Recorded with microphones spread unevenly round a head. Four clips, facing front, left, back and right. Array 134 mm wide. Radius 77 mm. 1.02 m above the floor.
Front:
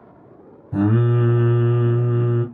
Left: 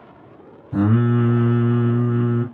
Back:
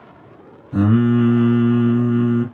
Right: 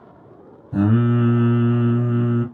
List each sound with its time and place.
0.7 s singing: 55° left, 1.6 m